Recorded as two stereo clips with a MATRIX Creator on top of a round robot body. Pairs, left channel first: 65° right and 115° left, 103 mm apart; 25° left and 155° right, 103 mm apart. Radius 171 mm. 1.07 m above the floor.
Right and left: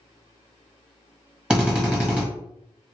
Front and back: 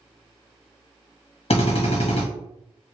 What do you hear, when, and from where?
1.5 s a drill: 30° left, 1.3 m